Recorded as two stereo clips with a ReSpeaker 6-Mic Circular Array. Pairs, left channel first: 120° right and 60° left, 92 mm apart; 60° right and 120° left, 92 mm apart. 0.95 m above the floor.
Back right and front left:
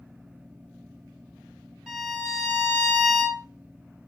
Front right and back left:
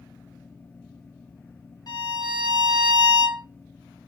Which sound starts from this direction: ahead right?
A violin, at 1.9 s.